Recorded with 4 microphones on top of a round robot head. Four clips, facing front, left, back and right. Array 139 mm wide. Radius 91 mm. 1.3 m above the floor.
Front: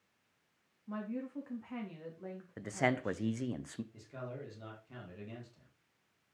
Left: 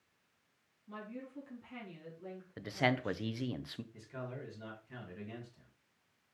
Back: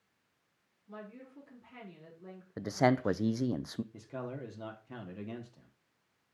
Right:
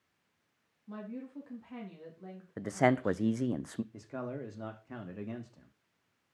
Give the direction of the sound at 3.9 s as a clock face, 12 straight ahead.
4 o'clock.